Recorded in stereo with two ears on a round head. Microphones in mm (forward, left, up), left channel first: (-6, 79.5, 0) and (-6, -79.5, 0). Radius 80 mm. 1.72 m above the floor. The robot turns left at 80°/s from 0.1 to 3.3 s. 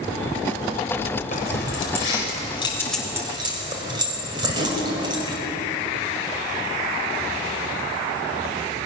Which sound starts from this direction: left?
Keys jangling, at 1.3 s.